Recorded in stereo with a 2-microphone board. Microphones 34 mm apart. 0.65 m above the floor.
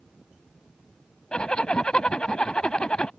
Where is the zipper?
30° left (ahead or behind).